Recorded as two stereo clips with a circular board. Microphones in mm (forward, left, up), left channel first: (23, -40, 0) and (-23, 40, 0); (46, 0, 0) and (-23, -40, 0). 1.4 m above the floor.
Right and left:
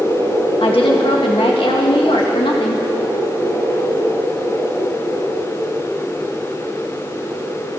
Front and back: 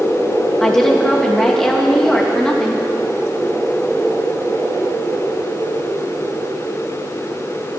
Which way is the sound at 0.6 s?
55° right.